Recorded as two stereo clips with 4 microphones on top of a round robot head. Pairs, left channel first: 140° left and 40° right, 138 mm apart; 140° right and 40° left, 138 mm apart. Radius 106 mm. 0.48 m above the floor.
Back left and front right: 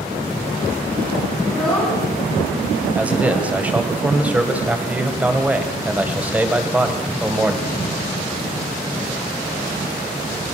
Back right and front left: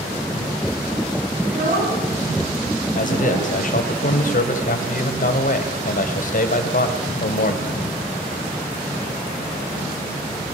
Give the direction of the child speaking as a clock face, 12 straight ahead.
10 o'clock.